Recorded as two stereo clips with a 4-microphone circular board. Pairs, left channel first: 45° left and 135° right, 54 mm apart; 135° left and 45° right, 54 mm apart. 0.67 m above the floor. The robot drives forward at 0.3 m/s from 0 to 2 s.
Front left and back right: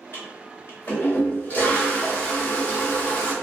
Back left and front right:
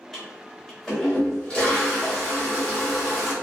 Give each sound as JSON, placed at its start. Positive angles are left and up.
{"t": 0.1, "sound": "a toilet flushing", "azimuth_deg": 50, "distance_m": 1.5}